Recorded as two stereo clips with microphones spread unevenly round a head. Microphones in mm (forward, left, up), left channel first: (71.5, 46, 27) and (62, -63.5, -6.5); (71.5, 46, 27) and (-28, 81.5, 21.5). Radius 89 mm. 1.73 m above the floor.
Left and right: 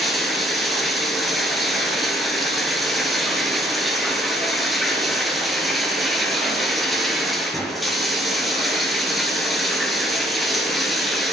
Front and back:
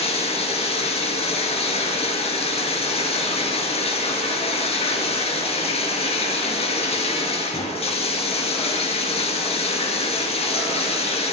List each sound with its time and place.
0.0 s running water: straight ahead, 5.5 m